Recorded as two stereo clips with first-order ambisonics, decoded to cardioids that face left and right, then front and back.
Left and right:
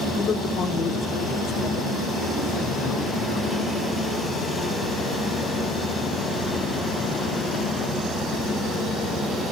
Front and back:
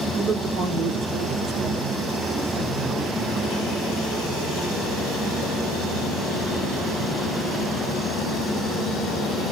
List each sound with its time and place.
0.2 s a man speaking: 155° left, 0.8 m; by 3.6 s 130° left, 4 m